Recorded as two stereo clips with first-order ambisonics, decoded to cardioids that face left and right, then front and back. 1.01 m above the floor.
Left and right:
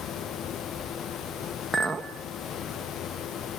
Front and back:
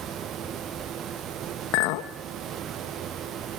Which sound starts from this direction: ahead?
A clink, at 1.7 s.